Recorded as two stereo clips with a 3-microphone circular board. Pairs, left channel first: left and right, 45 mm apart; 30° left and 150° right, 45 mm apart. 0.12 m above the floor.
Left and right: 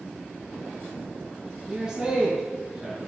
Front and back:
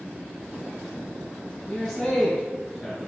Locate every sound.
1.7 s a man speaking: 45° right, 1.4 m